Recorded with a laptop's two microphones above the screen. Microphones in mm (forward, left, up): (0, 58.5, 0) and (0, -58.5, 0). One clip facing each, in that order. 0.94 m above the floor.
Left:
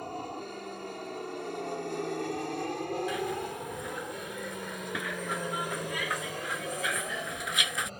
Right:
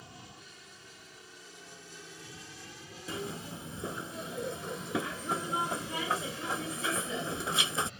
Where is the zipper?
30° right (ahead or behind).